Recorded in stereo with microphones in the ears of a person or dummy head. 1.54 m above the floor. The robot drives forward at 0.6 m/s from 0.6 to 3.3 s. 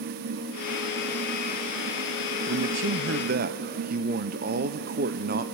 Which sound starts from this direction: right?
A man speaking, at 2.5 s.